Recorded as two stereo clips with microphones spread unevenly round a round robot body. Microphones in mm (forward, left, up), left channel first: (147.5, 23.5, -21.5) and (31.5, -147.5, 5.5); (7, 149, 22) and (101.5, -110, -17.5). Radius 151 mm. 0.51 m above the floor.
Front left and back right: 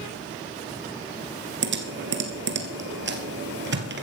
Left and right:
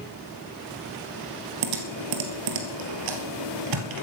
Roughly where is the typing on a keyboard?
Right.